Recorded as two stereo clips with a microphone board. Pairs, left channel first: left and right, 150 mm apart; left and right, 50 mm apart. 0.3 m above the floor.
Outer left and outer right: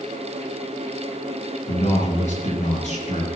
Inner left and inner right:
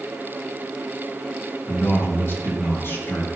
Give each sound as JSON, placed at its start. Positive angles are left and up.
{"t": 1.7, "sound": "a man speaking", "side_deg": 50, "distance_m": 5.5}